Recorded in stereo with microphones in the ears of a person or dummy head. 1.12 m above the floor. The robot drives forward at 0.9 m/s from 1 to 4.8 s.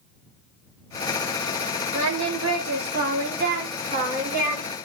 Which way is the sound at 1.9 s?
75° right (ahead or behind).